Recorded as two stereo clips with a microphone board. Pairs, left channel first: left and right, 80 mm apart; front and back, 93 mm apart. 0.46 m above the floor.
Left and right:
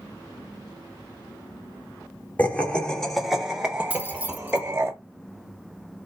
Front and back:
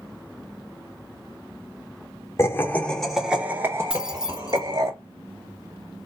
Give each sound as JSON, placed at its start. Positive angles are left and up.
{"t": 2.4, "sound": "laughter", "azimuth_deg": 35, "distance_m": 1.0}
{"t": 3.9, "sound": "keys jangling", "azimuth_deg": -110, "distance_m": 0.7}